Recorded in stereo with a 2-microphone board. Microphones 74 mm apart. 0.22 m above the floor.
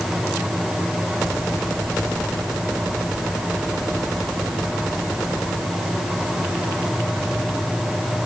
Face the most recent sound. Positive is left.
No sound to turn to.